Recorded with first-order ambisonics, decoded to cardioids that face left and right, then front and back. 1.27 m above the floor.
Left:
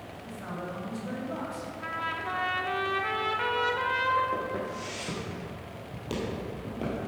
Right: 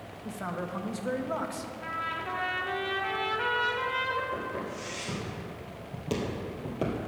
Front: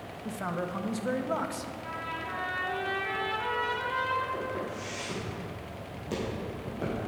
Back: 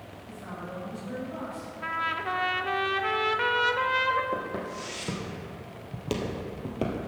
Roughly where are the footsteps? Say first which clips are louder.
Left 2 dB, back 1 dB; behind.